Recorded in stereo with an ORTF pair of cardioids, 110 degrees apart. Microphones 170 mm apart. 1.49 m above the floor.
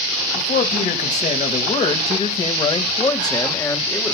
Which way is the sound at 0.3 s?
50° left.